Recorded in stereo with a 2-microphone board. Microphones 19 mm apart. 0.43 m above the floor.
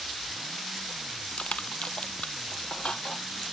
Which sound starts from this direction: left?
Crushing, at 1.4 s.